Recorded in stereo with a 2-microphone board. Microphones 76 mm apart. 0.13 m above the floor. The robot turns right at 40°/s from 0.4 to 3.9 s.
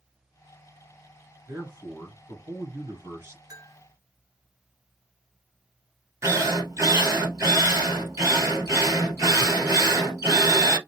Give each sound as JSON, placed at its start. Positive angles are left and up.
{"t": 1.5, "sound": "a man speaking", "azimuth_deg": -130, "distance_m": 2.0}
{"t": 3.5, "sound": "a bell", "side_deg": -45, "distance_m": 1.3}
{"t": 6.2, "sound": "a drill", "side_deg": -35, "distance_m": 1.5}